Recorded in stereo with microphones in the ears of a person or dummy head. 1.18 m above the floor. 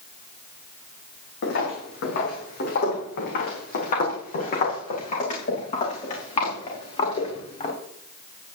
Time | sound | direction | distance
1.4 | footsteps | 65° left (ahead or behind) | 3.5 m